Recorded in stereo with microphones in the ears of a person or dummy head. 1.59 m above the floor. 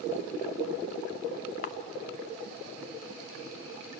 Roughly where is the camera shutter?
Left.